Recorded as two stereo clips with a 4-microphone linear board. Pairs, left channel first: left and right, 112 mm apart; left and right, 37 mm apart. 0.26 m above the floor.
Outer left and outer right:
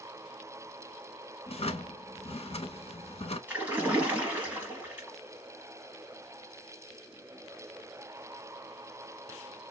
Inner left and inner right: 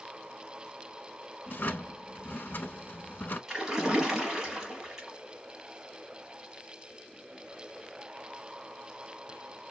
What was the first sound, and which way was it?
A drawer, 60° left (ahead or behind).